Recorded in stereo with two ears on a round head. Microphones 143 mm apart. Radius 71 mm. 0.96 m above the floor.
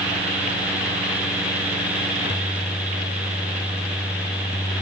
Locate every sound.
Only background noise.